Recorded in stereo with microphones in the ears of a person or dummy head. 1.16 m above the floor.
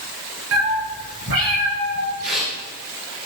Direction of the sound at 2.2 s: 65° right (ahead or behind).